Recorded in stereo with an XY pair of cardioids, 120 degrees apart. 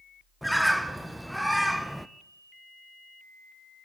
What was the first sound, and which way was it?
A bird, straight ahead.